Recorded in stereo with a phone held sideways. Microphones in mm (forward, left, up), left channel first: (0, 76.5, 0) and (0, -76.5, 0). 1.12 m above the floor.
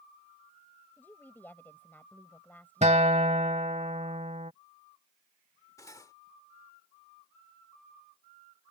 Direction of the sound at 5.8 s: 20° left (ahead or behind).